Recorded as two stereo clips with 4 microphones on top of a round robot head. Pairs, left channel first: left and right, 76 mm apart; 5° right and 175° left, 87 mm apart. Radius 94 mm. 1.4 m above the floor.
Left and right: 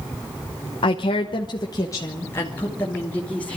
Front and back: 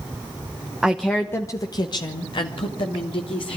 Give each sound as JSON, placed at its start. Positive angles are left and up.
{"t": 0.8, "sound": "a woman speaking", "azimuth_deg": 95, "distance_m": 1.1}